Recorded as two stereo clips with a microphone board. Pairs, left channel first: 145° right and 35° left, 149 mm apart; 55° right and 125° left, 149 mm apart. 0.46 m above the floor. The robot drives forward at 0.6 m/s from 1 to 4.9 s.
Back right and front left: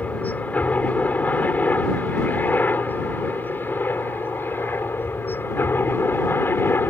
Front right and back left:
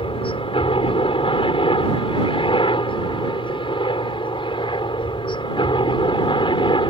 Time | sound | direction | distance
0.0 | a helicopter | 70° right | ?